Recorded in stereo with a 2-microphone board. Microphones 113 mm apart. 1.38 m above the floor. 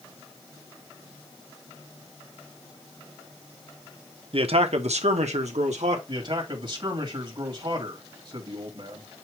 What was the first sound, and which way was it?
A man speaking, 55° right (ahead or behind).